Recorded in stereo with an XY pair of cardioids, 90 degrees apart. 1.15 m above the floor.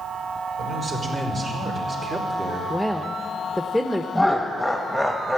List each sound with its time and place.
0.6 s a man speaking: 60° right, 4.5 m; by 2.6 s 45° right, 3 m
2.7 s a woman speaking: 5° right, 0.8 m
4.2 s laughter: straight ahead, 1.1 m